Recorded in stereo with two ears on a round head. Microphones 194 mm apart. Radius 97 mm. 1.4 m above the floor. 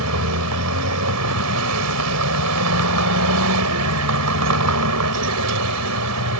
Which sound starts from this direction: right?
A vehicle, at 0.0 s.